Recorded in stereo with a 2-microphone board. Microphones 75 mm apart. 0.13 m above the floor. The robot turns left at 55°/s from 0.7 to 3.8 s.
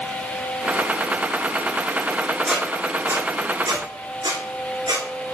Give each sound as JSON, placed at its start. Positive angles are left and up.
{"t": 2.5, "sound": "a squeak", "side_deg": 0, "distance_m": 2.5}